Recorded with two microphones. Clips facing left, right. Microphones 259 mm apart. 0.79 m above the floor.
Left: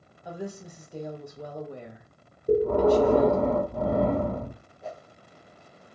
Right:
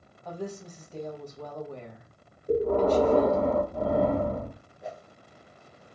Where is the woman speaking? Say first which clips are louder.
Even; 10° left (ahead or behind), 1.0 m.